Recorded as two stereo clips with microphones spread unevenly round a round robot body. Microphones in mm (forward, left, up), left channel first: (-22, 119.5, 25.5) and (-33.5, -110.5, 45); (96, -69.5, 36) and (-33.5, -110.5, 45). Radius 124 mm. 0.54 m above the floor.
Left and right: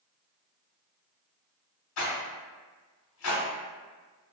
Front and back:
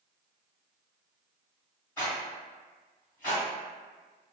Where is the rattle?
100° left, 1.1 m.